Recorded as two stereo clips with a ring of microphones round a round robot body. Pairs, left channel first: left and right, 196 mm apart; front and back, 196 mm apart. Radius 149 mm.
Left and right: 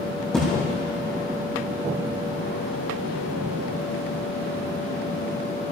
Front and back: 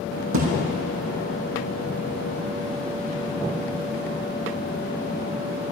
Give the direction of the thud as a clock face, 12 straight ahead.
6 o'clock.